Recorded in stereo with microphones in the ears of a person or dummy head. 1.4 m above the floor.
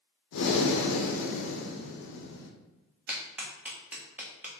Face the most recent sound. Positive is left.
turn(degrees=-10)  # may be behind; listen again after turning